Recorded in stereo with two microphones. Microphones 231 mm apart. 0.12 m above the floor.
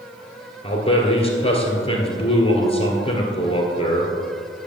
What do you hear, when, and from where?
0.6 s a man speaking: 25° left (ahead or behind), 2.0 m